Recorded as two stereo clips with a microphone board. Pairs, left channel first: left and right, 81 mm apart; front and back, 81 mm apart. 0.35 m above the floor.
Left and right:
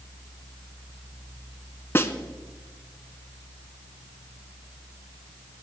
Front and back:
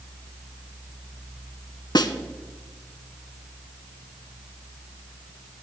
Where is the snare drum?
30° left, 0.8 m.